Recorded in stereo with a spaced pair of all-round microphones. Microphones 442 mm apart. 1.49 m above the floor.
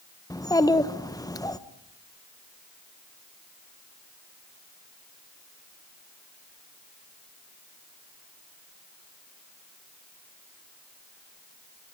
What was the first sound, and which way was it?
A child speaking, 10° left (ahead or behind).